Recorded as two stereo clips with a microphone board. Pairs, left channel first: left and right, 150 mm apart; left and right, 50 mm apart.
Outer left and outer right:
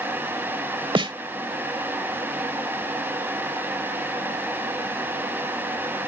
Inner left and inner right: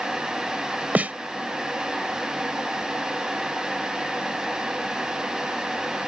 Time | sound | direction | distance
0.9 | a snare drum | 35° right (ahead or behind) | ?